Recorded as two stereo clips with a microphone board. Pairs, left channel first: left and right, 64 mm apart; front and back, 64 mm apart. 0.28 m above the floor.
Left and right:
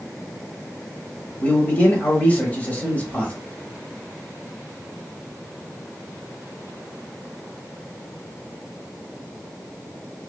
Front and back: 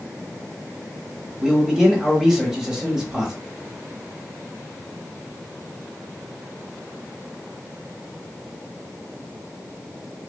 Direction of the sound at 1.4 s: 110° left.